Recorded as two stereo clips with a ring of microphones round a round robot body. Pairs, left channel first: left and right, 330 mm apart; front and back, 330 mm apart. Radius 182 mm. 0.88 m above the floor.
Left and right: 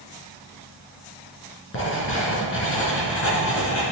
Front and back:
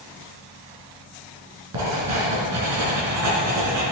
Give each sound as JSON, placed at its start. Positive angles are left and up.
{"t": 1.7, "sound": "writing", "azimuth_deg": 140, "distance_m": 3.0}